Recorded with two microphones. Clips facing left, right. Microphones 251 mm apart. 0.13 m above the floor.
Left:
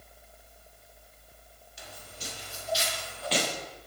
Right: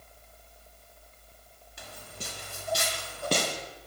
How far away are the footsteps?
About 3 m.